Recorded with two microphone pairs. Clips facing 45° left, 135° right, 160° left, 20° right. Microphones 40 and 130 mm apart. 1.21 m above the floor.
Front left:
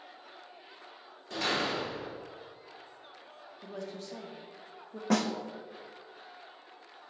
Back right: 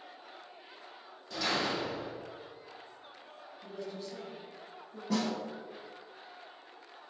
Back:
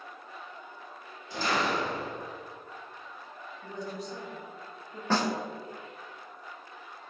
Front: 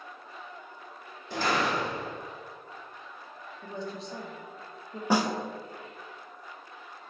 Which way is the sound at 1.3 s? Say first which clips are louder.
Front left 1 dB, front 1 dB; 5° left.